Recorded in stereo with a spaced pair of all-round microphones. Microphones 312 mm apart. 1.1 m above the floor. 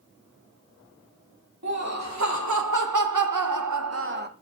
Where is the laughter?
55° right (ahead or behind), 1.5 m; by 4.3 s 30° right (ahead or behind), 0.6 m.